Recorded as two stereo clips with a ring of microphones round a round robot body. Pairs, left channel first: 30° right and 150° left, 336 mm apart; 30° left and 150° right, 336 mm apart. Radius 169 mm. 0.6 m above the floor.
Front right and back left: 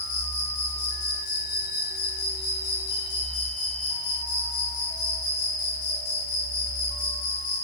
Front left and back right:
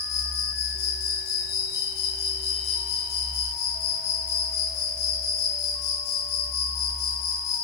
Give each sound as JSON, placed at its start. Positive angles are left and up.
{"t": 0.0, "sound": "an insect", "azimuth_deg": 0, "distance_m": 9.0}